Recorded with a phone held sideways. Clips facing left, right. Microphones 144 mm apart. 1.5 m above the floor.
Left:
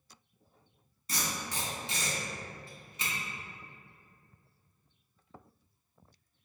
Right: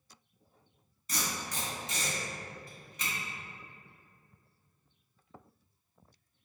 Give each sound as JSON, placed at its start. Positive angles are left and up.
{"t": 1.1, "sound": "tape being pulled", "side_deg": 30, "distance_m": 1.9}